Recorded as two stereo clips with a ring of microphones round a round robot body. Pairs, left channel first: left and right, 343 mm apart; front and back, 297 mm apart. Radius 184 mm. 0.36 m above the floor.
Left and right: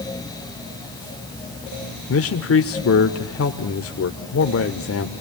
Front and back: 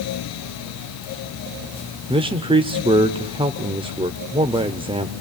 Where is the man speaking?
115° left, 1.1 m.